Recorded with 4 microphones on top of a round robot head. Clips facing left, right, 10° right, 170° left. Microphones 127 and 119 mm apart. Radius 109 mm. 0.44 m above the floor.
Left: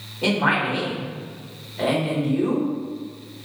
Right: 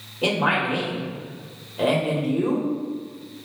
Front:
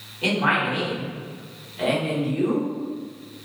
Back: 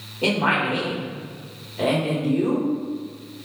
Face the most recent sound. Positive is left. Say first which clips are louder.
# left 1 dB, back 1 dB
turn(degrees=-165)